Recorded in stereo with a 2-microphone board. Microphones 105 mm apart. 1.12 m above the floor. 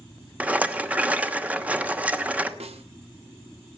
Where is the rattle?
15° right (ahead or behind), 1.0 m.